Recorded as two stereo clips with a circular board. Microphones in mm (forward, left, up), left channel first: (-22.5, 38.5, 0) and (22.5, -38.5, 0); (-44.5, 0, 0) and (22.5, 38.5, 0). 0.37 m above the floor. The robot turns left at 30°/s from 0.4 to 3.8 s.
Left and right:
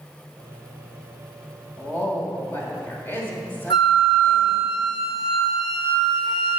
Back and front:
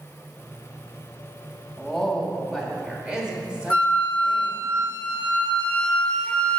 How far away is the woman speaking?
About 1.4 m.